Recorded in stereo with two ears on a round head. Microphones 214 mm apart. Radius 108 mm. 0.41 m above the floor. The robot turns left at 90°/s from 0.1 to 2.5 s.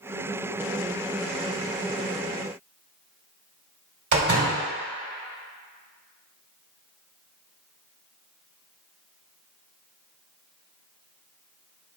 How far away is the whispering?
No whispering in this recording.